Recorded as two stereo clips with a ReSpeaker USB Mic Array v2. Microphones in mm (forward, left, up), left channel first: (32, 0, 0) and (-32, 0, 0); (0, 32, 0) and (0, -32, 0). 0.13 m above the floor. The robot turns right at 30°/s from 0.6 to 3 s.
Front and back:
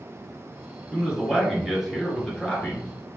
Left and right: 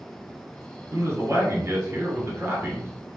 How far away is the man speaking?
About 1.8 m.